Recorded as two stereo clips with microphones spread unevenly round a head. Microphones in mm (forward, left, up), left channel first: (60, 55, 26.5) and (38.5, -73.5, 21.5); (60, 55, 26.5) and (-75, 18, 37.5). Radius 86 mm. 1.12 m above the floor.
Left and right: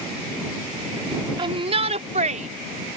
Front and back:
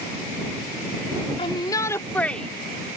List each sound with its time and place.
1.4 s a shout: 45° right; by 3.0 s 80° right